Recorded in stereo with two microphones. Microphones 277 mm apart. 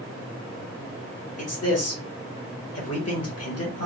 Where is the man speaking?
60° left (ahead or behind), 1.2 m.